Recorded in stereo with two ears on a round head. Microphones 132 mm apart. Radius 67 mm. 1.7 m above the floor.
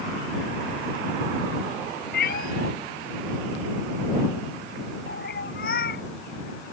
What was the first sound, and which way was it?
A cat meowing, 70° left (ahead or behind).